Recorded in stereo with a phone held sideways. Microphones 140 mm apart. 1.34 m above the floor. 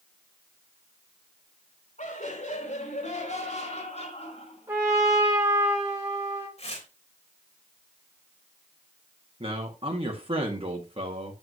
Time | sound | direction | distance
2.0 | laughter | 65° left (ahead or behind) | 4.5 m
4.7 | a trumpet | 20° right (ahead or behind) | 5 m
6.6 | tearing paper | 50° left (ahead or behind) | 3.5 m
9.4 | a man speaking | 40° right (ahead or behind) | 2 m